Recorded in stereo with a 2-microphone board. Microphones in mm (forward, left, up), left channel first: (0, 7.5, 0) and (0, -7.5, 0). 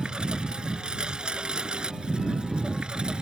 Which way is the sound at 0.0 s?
75° right (ahead or behind).